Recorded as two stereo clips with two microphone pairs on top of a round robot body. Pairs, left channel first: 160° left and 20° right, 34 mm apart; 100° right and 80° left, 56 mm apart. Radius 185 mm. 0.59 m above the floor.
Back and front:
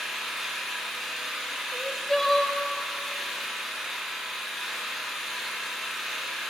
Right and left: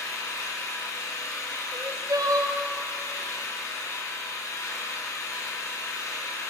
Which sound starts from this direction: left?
Crying, at 1.7 s.